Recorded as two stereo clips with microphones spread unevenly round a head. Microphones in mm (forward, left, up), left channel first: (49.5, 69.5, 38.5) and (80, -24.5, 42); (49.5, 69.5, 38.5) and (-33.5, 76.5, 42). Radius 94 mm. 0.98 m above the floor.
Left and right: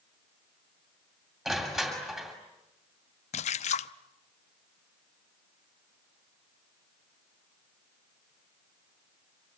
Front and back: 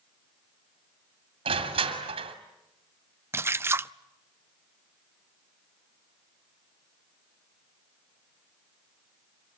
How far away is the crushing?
About 2.5 m.